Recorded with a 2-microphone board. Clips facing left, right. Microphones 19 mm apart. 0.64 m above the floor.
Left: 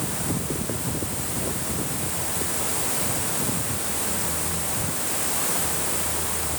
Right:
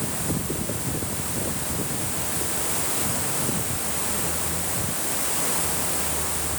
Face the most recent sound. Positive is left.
No sound to turn to.